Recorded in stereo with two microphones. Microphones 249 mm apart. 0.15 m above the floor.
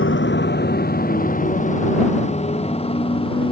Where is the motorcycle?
50° left (ahead or behind); by 3.5 s 20° left (ahead or behind).